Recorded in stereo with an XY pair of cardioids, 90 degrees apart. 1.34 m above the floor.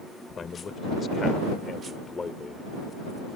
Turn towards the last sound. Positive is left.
turn(degrees=30)